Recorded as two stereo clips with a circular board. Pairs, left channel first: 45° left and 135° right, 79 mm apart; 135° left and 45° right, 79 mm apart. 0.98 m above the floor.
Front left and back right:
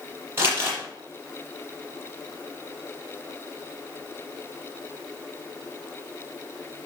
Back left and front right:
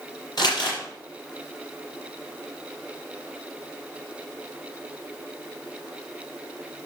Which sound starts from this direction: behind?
Crumpling, at 0.4 s.